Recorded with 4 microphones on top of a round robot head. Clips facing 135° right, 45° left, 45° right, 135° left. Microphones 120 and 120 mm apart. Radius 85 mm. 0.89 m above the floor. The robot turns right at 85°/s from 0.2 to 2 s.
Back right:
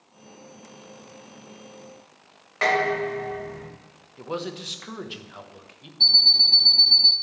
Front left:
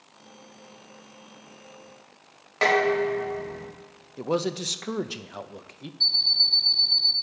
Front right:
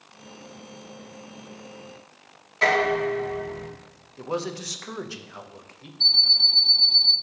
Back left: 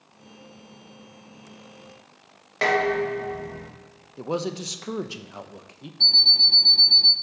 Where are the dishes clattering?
105° left, 3 m.